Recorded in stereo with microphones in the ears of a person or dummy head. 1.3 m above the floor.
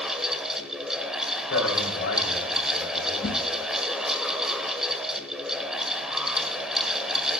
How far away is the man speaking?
About 3 m.